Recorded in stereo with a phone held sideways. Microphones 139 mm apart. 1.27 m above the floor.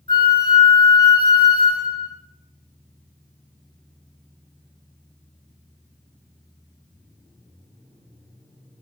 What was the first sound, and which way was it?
A flute, 40° left (ahead or behind).